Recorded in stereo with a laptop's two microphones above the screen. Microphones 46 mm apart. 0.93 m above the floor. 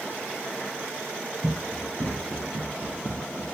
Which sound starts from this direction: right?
Running footsteps, at 1.4 s.